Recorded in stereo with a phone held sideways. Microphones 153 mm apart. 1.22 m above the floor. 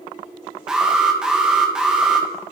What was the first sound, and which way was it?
An alarm, 5° right (ahead or behind).